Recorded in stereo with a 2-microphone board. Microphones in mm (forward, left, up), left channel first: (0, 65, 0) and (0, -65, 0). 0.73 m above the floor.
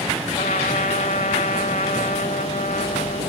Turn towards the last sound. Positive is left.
turn(degrees=85)